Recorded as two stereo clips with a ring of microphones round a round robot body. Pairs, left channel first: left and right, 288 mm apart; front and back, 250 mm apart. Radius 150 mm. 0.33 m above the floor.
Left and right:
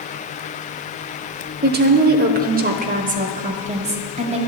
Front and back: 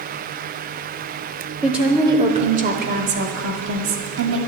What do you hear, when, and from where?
1.6 s a woman speaking: 90° right, 0.9 m; by 4.4 s 155° right, 1.8 m